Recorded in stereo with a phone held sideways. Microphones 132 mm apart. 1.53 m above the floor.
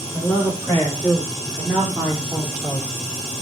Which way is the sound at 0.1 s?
10° left (ahead or behind).